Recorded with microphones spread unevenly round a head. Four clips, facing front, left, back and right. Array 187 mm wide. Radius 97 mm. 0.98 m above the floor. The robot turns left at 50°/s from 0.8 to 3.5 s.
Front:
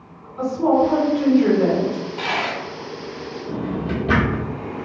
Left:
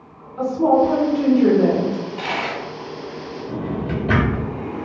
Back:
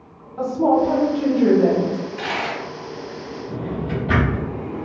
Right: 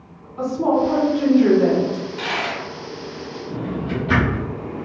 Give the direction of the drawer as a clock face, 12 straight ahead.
12 o'clock.